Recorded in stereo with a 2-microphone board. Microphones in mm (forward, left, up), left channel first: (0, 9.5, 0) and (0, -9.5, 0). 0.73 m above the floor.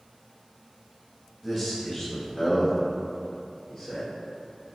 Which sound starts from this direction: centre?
A man speaking, at 1.4 s.